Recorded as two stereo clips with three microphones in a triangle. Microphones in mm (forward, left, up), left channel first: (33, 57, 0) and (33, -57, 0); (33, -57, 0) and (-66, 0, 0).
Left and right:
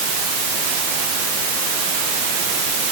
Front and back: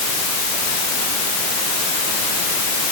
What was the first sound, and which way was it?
Only background noise.